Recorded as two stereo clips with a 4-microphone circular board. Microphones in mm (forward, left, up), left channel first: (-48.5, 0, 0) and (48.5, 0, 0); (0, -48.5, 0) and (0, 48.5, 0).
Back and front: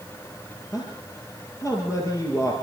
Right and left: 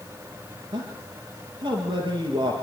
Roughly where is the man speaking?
Behind left.